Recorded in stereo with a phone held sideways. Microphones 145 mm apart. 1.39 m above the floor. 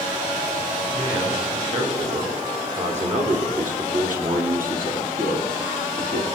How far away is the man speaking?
About 3.5 m.